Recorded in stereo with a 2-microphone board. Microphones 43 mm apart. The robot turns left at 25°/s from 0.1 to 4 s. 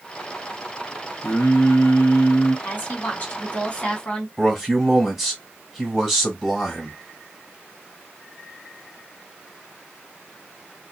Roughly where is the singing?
Behind left.